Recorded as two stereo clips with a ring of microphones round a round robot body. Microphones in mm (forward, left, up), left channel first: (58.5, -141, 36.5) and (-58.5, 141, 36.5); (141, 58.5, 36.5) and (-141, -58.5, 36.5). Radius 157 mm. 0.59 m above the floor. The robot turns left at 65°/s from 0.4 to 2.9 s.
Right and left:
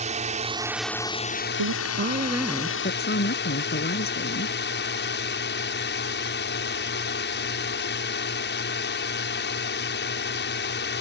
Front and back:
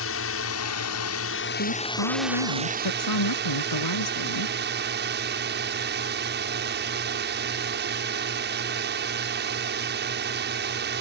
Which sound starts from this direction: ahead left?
A drone, at 0.0 s.